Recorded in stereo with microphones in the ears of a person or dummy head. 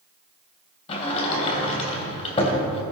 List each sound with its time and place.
0.9 s a sliding door: 30° left (ahead or behind), 3 m